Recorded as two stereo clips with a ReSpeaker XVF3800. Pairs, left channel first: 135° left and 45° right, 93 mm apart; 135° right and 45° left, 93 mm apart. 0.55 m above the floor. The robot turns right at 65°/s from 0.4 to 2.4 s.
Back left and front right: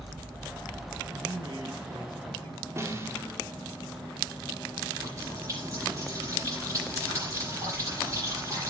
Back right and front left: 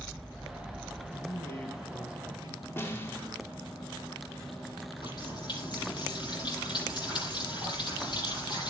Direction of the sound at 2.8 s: 85° right.